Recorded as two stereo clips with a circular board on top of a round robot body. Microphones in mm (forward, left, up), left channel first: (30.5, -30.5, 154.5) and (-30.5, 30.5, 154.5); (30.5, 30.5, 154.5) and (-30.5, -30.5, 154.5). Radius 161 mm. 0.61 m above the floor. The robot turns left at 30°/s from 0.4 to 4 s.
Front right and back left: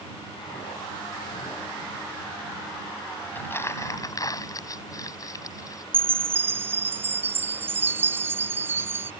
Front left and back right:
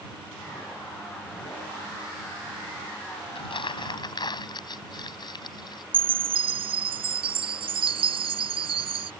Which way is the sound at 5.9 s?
155° right.